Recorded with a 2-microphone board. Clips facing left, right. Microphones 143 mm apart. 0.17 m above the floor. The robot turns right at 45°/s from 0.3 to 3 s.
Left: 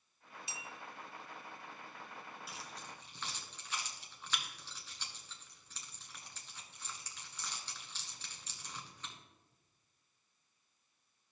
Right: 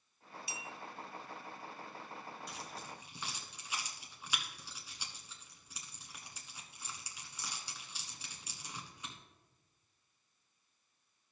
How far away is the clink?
About 0.7 m.